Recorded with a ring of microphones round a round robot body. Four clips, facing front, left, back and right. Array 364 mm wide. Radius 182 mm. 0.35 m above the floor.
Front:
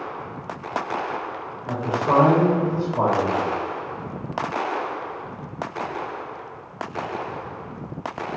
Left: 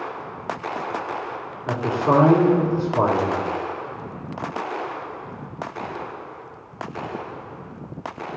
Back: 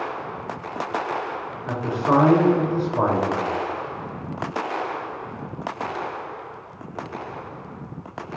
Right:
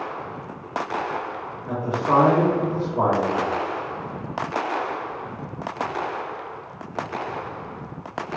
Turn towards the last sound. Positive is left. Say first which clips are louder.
# left 2 dB, even
turn(degrees=100)